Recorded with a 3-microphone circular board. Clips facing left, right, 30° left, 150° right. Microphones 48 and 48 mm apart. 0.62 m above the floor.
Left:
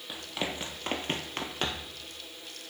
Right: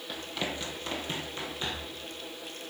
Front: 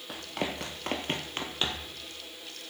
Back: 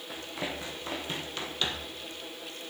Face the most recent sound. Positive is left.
turn(degrees=105)